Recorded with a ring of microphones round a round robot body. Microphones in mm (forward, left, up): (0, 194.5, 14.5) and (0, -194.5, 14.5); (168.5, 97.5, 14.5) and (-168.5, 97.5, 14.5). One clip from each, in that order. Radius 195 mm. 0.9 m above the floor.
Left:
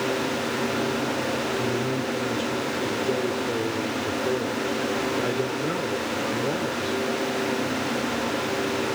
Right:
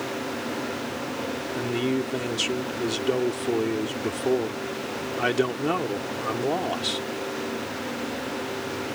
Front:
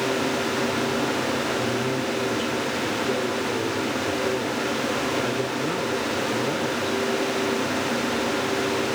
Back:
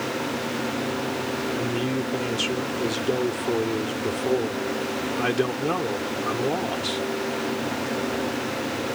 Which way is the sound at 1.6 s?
115° right.